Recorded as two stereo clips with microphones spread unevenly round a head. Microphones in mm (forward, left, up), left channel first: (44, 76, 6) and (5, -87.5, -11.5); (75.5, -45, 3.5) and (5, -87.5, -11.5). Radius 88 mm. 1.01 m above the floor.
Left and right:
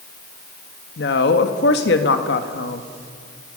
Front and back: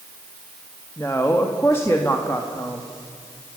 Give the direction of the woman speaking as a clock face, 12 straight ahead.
8 o'clock.